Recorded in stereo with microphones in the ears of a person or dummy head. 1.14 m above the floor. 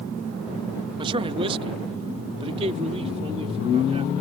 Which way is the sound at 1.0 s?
25° right (ahead or behind).